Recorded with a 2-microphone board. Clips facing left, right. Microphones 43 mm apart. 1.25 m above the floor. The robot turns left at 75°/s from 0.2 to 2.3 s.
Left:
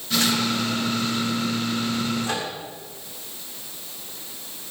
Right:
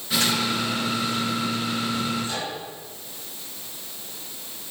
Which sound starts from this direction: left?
A microwave, at 2.2 s.